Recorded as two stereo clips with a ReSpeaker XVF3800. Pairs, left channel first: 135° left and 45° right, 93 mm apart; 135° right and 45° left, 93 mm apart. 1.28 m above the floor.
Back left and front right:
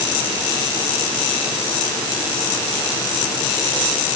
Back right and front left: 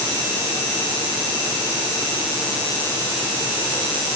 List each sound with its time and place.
Only background noise.